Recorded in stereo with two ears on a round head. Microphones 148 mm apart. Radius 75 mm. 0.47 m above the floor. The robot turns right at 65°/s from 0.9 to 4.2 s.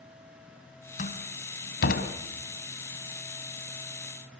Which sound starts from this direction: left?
A door slam, at 1.0 s.